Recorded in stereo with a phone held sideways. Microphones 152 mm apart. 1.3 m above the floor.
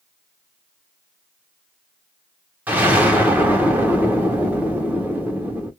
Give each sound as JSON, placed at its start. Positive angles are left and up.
{"t": 2.7, "sound": "an explosion", "side_deg": -10, "distance_m": 1.0}